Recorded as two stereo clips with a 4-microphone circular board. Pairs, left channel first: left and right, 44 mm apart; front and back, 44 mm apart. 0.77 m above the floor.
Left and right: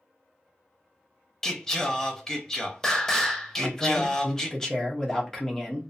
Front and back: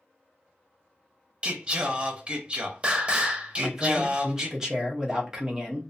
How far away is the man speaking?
About 0.7 m.